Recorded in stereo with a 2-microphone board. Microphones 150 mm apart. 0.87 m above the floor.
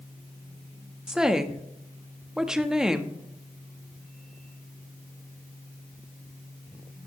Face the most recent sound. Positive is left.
turn(degrees=-5)  # may be behind; listen again after turning